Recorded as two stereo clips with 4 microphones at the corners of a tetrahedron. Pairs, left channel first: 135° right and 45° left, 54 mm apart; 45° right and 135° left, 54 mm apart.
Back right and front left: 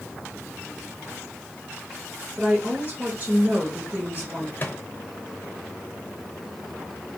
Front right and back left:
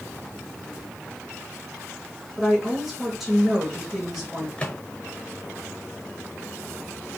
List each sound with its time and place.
2.4 s a woman speaking: 55° left, 1.0 m
4.6 s a microwave: 100° right, 0.8 m